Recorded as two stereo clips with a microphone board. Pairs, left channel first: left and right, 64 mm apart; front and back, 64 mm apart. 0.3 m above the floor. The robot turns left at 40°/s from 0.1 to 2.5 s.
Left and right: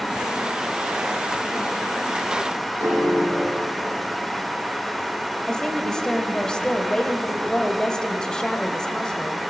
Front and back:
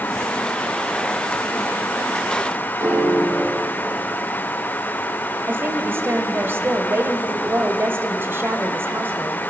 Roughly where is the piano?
Behind right.